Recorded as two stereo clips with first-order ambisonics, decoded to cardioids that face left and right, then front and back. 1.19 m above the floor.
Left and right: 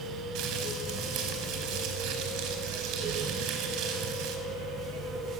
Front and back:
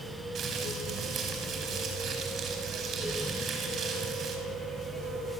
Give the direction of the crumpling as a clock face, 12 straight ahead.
4 o'clock.